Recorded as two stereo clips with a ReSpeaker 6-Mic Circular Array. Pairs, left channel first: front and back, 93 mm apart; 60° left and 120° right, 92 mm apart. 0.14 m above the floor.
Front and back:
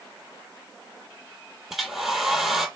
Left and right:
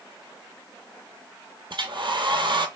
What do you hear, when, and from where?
1.7 s a hair dryer: 95° right, 0.6 m